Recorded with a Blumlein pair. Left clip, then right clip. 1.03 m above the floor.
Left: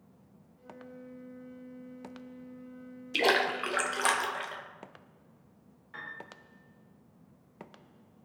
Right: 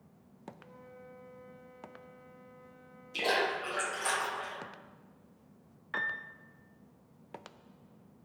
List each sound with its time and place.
0.6 s a flute: 65° left, 0.7 m
3.1 s a splash: 60° left, 0.7 m
5.9 s a piano: 35° right, 0.5 m